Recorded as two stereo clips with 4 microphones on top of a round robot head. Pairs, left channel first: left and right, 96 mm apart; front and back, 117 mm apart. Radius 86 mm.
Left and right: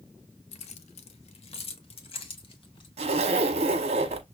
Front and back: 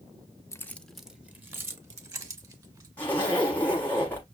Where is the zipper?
80° right, 0.9 m.